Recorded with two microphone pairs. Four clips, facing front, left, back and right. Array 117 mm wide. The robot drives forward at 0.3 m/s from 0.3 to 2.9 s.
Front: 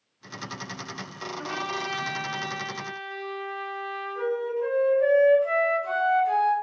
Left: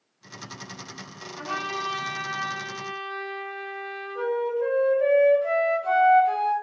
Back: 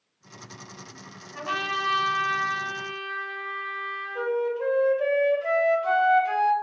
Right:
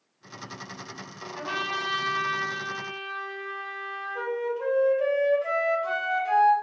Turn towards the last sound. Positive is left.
turn(degrees=175)